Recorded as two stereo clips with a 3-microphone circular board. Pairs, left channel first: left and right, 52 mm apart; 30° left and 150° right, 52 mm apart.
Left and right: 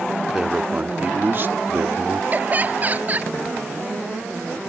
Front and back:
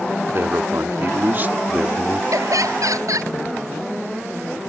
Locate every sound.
0.3 s a man speaking: 170° right; by 2.2 s 75° right
2.3 s laughter: 150° right